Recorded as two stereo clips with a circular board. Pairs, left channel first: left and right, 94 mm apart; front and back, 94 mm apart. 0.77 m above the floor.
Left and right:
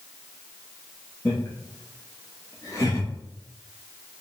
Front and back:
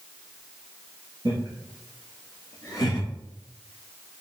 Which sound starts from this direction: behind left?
Laughter, at 1.2 s.